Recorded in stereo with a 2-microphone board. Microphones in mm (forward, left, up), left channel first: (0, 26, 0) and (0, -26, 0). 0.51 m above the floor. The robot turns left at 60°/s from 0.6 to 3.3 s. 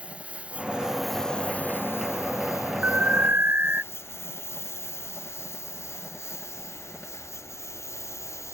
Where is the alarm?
35° right (ahead or behind); by 3.8 s 45° right (ahead or behind).